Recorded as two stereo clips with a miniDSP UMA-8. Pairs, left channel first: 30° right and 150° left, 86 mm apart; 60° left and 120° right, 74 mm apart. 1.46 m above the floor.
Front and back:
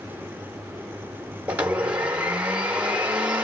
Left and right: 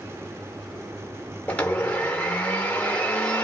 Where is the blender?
100° left, 1.2 m.